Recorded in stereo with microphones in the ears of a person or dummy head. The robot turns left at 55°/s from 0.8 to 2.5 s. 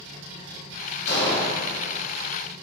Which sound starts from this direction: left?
An explosion, at 1.1 s.